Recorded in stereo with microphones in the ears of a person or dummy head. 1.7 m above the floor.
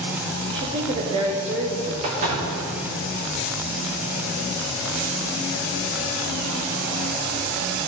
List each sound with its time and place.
0.5 s a woman speaking: 30° right (ahead or behind), 0.8 m
2.0 s a door slam: 40° right (ahead or behind), 1.1 m